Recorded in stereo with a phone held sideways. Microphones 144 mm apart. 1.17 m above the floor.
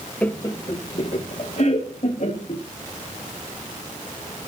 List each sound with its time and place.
0.2 s laughter: 10° left (ahead or behind), 0.7 m; by 2.6 s 60° left (ahead or behind), 2 m